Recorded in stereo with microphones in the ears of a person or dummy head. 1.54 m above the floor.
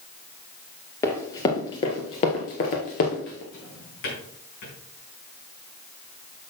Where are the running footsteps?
15° left (ahead or behind), 1.8 m; by 3.4 s 40° left (ahead or behind), 2.0 m.